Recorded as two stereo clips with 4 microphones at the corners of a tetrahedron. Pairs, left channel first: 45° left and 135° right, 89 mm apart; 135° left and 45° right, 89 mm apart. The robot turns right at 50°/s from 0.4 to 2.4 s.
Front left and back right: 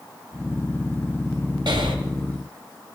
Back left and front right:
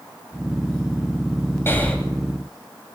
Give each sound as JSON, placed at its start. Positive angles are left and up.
{"t": 1.7, "sound": "breathing", "azimuth_deg": -160, "distance_m": 1.8}